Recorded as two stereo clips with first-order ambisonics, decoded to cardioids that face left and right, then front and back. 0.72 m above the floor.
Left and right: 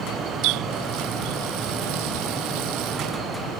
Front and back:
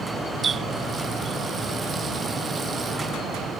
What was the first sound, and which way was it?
A running tap, 110° right.